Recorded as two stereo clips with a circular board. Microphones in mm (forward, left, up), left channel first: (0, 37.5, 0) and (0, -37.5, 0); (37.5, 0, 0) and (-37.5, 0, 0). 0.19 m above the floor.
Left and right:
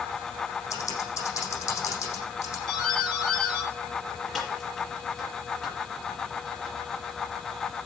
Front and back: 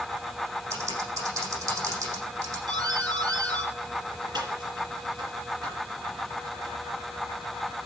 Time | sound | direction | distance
0.7 | typing on a keyboard | 140° left | 8 m
2.7 | a doorbell | 175° left | 5 m